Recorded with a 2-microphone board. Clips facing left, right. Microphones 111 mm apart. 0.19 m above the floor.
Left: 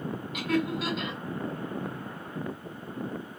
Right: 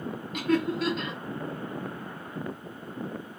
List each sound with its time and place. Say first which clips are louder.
0.3 s laughter: right 3 dB; centre (ahead or behind), 1.8 m